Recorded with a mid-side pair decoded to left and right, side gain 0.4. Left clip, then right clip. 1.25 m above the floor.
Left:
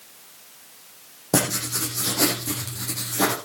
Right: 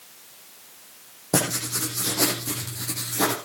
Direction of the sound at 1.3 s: 10° left.